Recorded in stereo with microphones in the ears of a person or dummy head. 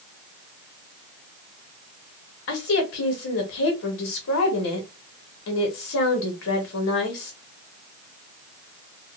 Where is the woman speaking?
65° left (ahead or behind), 1.2 m.